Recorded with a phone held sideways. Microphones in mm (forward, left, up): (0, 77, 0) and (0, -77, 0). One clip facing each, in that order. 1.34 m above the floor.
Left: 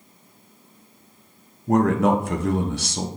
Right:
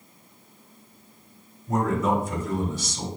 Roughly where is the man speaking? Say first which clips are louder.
Left 5 dB; left.